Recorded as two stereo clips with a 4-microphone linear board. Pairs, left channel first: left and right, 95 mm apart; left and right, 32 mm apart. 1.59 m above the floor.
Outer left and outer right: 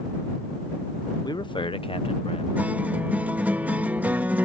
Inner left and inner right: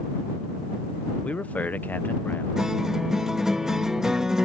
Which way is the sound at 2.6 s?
20° right (ahead or behind).